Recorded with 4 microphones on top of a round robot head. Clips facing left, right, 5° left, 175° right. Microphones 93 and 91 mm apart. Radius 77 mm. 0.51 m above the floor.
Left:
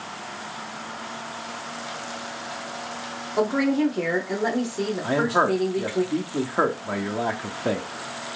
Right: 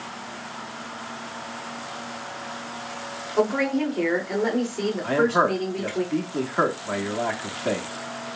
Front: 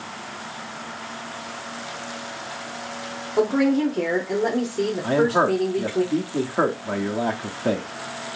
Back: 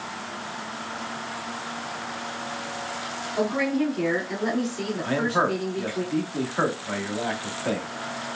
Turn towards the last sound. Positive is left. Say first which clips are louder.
# right 1 dB, front 4 dB
turn(degrees=30)